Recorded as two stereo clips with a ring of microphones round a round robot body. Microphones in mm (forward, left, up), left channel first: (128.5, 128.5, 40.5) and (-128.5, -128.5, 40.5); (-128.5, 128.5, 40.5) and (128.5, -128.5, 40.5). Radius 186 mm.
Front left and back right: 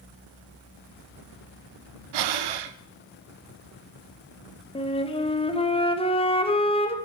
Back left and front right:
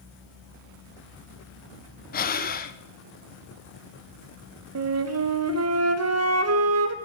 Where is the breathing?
160° right, 0.7 m.